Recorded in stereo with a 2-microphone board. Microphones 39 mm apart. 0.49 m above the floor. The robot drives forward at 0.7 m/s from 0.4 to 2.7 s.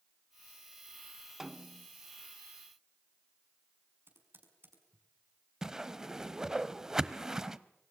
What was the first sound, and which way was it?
A snare drum, 10° right (ahead or behind).